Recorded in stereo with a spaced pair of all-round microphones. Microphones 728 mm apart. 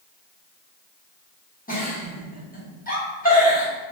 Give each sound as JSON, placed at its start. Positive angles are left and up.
{"t": 1.7, "sound": "a giggle", "side_deg": 10, "distance_m": 1.0}